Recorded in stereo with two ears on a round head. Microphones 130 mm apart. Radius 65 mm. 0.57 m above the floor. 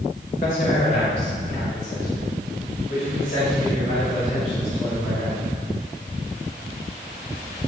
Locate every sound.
0.3 s a man speaking: 60° left (ahead or behind), 2.5 m